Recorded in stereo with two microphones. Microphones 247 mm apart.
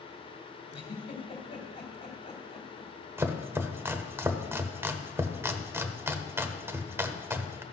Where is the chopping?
10° right (ahead or behind), 0.7 m.